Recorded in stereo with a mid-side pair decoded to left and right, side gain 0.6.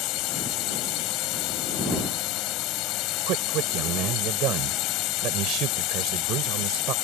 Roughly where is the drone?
Left.